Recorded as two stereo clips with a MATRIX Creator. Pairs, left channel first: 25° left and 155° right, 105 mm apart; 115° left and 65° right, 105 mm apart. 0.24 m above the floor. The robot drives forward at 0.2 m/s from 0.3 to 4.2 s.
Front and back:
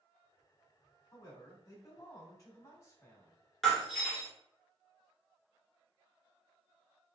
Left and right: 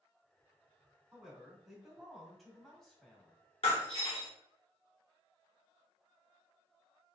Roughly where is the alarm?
No alarm in this recording.